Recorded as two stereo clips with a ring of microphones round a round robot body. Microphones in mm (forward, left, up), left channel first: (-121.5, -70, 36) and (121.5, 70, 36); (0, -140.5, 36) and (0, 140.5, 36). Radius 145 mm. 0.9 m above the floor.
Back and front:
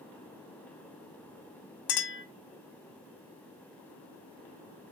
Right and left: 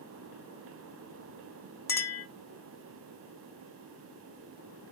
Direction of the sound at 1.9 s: 170° right.